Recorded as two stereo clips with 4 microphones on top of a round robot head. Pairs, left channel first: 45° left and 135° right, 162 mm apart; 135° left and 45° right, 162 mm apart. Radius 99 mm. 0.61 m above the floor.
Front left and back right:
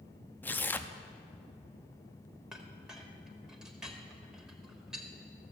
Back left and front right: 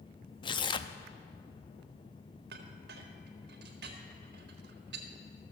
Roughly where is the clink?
Ahead right.